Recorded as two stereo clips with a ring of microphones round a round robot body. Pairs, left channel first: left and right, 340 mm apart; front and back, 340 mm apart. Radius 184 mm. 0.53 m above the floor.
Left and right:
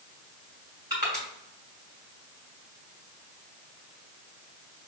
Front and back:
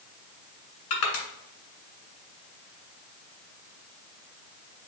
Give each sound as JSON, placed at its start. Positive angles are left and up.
{"t": 0.9, "sound": "crushing", "azimuth_deg": -10, "distance_m": 2.0}